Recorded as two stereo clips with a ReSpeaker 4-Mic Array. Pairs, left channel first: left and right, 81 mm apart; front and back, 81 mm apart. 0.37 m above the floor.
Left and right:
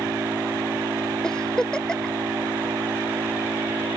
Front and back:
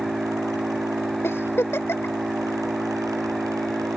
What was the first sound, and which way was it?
An engine running, 125° right.